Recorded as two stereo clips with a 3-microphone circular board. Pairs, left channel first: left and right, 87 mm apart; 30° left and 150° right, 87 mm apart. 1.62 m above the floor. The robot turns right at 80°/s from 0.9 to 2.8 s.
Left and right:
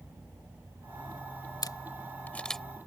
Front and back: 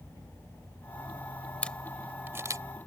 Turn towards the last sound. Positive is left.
turn(degrees=-165)